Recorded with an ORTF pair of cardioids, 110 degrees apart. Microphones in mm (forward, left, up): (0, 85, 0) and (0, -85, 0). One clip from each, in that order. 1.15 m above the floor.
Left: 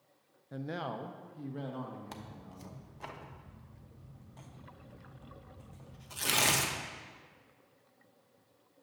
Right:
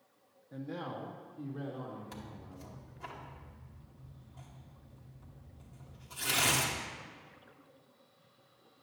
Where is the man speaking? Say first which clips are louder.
Left 3 dB; 30° left, 0.7 m; by 3.1 s 75° left, 3.5 m.